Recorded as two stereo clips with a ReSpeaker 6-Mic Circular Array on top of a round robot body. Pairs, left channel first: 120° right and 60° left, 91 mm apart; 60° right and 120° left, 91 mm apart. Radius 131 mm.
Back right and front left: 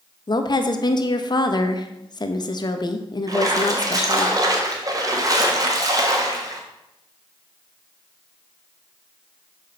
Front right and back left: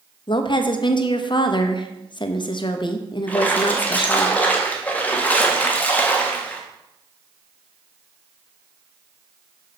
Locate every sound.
0.3 s a woman speaking: 85° right, 0.9 m
3.3 s a splash: 15° left, 1.4 m